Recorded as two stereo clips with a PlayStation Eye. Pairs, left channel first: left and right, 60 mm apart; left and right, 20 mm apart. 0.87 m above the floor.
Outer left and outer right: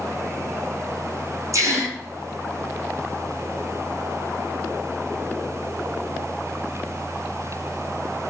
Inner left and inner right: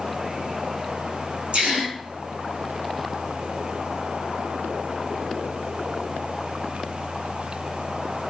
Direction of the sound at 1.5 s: 60° right (ahead or behind).